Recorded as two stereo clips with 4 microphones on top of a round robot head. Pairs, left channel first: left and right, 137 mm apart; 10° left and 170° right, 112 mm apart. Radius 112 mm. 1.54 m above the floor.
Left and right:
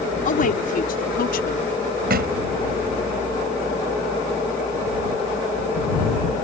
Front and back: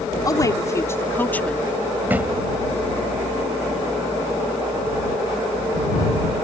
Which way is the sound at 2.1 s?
90° right.